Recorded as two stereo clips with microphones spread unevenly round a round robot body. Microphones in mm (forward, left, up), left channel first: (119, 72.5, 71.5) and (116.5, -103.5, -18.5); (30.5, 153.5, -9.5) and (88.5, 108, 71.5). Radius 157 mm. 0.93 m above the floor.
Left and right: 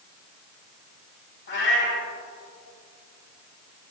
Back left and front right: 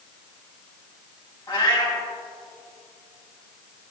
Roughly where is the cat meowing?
Left.